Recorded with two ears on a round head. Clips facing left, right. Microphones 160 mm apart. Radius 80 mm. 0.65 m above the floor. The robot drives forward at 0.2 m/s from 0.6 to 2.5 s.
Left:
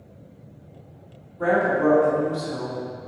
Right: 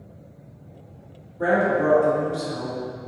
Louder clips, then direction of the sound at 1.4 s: Even; 10° right (ahead or behind).